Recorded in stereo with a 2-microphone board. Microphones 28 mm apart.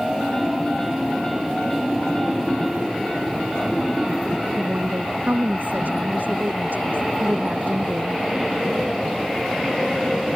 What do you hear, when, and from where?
4.6 s a woman speaking: 85° right